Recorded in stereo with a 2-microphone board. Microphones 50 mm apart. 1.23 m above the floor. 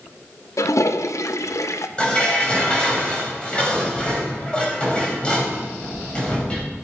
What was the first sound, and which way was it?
A toilet flushing, 75° left (ahead or behind).